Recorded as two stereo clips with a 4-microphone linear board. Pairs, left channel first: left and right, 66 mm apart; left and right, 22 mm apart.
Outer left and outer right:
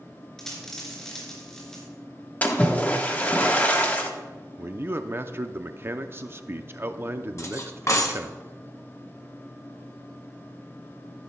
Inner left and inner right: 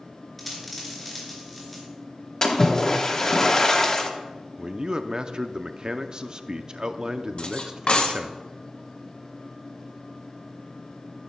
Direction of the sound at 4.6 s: 35° right (ahead or behind).